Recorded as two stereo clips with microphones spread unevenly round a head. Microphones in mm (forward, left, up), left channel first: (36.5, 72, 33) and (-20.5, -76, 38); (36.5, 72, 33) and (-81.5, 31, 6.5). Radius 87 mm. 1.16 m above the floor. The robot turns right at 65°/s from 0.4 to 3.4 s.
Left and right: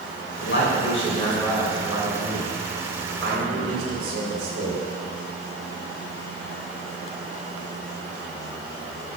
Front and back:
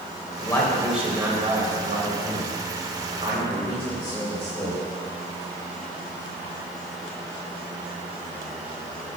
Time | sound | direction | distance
0.4 | a man speaking | 80° left | 5.5 m